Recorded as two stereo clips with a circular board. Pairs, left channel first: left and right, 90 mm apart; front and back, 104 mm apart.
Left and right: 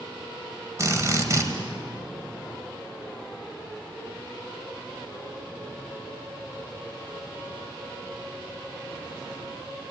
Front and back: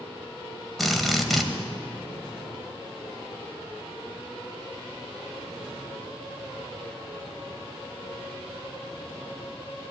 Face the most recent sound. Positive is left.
turn(degrees=-90)